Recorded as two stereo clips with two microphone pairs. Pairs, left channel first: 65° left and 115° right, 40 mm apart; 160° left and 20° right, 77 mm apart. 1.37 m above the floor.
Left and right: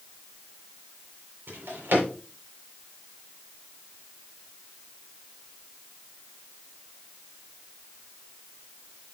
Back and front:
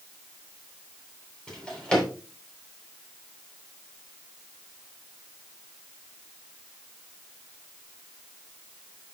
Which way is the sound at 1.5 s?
120° right.